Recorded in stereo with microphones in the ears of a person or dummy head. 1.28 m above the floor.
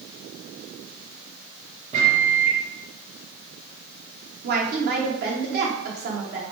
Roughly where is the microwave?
Right.